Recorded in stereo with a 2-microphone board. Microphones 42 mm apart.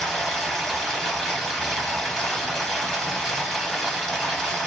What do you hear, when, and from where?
0.0 s running water: 10° left (ahead or behind), 1.4 m